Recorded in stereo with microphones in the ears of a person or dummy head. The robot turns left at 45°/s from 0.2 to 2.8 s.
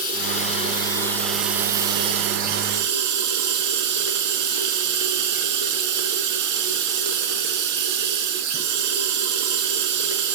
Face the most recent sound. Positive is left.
turn(degrees=-60)